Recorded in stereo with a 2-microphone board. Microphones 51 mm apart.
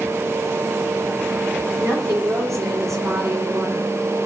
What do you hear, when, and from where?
1.8 s a woman speaking: 85° right, 10 m